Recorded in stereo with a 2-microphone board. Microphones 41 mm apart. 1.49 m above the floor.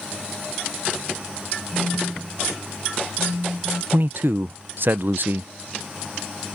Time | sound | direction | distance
1.7 | a phone buzzing | 45° right (ahead or behind) | ?
3.9 | a man speaking | 55° right (ahead or behind) | ?